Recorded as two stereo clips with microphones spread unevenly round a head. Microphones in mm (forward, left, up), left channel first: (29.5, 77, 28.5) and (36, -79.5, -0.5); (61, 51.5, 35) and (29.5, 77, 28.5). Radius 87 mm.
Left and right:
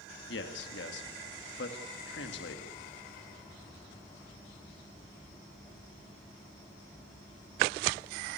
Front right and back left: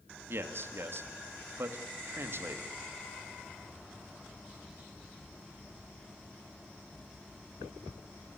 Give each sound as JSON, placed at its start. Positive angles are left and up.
{"t": 0.3, "sound": "a man speaking", "azimuth_deg": 115, "distance_m": 2.5}